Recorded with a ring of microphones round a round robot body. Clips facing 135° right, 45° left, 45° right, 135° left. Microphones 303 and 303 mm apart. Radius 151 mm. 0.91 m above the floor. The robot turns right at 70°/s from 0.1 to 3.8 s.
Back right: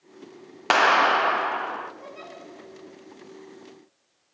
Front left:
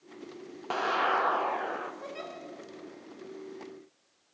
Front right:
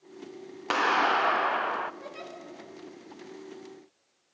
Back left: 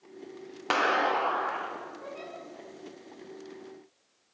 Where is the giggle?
5° right, 4 m; by 2.3 s 15° left, 4 m.